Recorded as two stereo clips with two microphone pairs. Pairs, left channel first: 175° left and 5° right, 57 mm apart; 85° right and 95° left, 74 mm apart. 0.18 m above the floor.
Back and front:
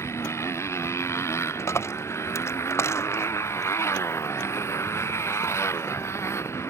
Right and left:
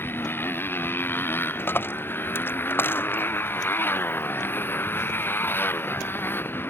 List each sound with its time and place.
0.0 s a motorcycle: 150° right
1.6 s a dropped coin: 150° right